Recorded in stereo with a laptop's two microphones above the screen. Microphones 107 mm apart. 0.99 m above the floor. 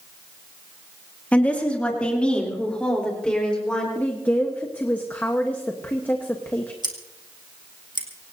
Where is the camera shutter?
No camera shutter in this recording.